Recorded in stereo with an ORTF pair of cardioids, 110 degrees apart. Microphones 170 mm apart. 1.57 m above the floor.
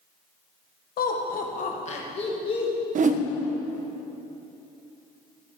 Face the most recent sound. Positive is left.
turn(degrees=-50)